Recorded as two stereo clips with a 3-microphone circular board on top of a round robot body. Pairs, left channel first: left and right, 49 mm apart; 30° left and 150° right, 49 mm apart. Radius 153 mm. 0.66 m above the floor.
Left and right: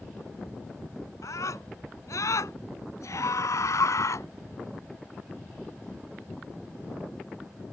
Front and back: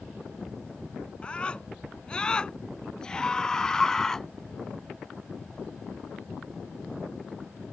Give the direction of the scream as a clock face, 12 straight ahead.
9 o'clock.